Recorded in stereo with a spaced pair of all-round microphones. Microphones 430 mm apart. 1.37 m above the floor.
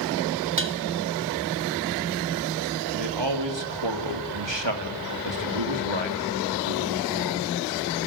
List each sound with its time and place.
0.6 s dishes clattering: 30° right (ahead or behind), 1.2 m
2.9 s a man speaking: 85° right, 3 m